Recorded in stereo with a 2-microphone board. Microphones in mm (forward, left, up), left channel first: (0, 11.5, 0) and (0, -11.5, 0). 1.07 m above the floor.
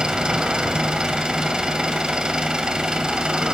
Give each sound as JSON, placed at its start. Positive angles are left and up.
{"t": 0.0, "sound": "an engine running", "side_deg": -40, "distance_m": 2.5}